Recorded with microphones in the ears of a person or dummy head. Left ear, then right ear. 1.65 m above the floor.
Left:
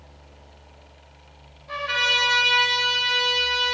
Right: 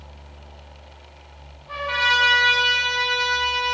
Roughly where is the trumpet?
Centre.